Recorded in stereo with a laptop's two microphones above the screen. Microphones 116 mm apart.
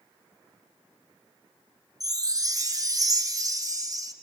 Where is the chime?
35° right (ahead or behind), 1.0 m.